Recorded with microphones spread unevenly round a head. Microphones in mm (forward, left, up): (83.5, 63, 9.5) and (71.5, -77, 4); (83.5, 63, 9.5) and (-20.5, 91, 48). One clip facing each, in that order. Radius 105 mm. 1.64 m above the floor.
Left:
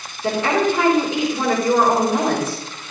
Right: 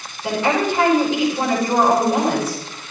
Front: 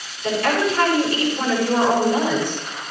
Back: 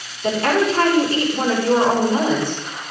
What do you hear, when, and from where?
0.2 s a woman speaking: 110° left, 6.5 m